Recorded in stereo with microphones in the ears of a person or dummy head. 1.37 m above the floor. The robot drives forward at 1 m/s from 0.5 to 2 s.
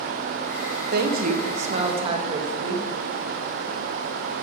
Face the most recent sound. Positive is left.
turn(degrees=-35)  # may be behind; listen again after turning